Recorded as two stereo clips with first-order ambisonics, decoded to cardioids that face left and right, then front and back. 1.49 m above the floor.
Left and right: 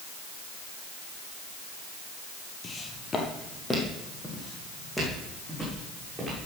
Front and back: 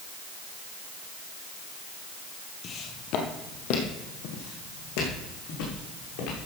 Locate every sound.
2.6 s footsteps: 35° left, 1.8 m; by 6.4 s 5° right, 6 m